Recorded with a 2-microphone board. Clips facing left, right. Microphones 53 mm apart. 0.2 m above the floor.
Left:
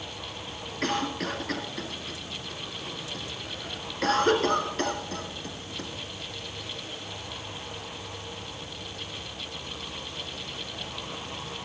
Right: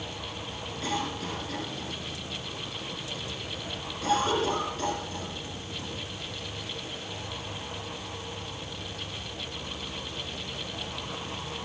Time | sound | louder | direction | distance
0.8 | a cough | left 4 dB | 60° left (ahead or behind) | 3 m